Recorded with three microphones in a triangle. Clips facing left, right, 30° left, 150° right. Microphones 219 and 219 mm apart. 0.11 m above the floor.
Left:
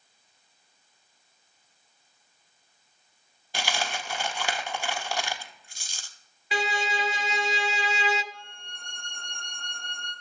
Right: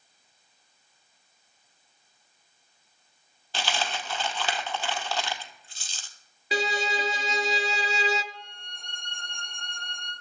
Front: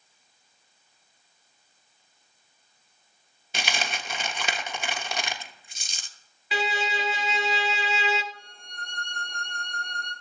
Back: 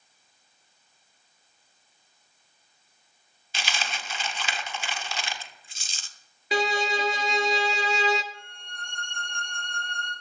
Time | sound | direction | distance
3.5 | a dropped coin | 15° left | 0.6 m
6.5 | a violin | 125° right | 0.6 m
8.3 | a violin | 70° left | 2.5 m